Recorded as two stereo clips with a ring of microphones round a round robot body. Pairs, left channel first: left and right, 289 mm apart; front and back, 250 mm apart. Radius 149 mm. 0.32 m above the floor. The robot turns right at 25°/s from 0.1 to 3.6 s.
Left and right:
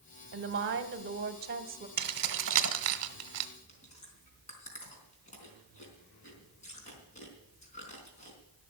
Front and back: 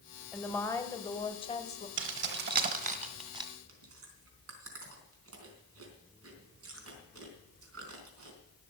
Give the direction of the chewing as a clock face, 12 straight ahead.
7 o'clock.